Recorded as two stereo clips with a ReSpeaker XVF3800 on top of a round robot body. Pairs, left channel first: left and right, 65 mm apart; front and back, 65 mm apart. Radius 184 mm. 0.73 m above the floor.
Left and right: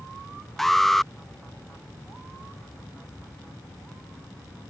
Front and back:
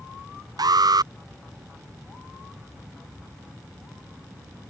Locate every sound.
0.6 s an alarm: straight behind